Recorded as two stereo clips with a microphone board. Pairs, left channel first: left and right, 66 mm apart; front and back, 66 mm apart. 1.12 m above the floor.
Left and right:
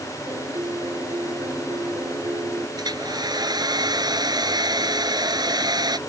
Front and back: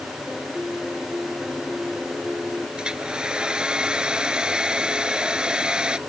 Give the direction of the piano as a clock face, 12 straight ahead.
3 o'clock.